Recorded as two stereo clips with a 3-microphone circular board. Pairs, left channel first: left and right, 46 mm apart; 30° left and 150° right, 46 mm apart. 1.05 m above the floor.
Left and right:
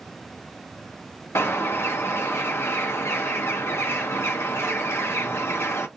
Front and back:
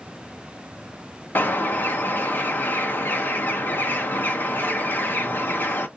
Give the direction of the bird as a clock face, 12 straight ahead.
10 o'clock.